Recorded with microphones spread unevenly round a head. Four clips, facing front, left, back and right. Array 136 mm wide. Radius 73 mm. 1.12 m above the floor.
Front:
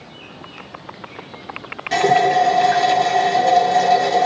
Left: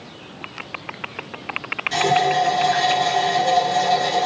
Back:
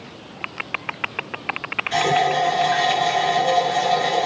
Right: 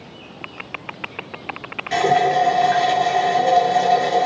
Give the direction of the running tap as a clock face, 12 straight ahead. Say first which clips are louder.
Right 2 dB, front 4 dB; 1 o'clock.